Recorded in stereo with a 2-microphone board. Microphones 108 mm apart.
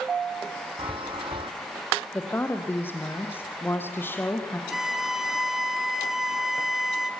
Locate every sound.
0.8 s a chime: 55° right (ahead or behind), 1.4 m
2.1 s a woman speaking: 20° left (ahead or behind), 3 m
4.7 s a violin: 5° right (ahead or behind), 1.3 m